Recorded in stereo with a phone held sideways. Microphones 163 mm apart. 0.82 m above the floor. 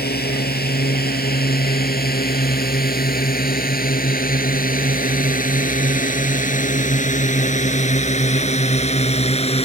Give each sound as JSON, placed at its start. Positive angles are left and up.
{"t": 0.0, "sound": "a drone", "side_deg": 75}